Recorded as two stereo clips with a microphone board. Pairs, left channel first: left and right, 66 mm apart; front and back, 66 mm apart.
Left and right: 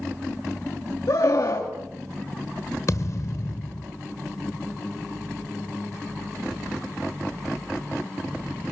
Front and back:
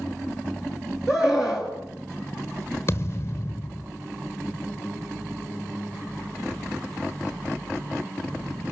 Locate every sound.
1.1 s a scream: 100° left, 3.5 m
2.9 s a thud: 50° left, 1.4 m